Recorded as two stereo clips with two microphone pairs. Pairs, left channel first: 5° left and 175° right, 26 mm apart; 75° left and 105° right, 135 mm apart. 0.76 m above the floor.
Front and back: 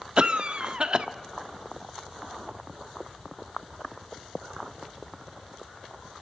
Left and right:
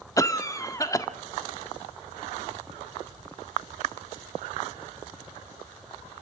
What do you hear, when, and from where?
0.2 s a cough: 140° left, 1.3 m